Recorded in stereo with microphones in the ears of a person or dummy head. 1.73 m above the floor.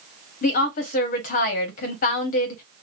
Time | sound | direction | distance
0.4 | a woman speaking | 45° left (ahead or behind) | 0.9 m